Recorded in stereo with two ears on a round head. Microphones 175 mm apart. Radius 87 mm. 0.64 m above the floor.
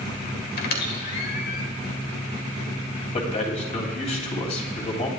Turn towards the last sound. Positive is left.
turn(degrees=35)  # may be behind; listen again after turning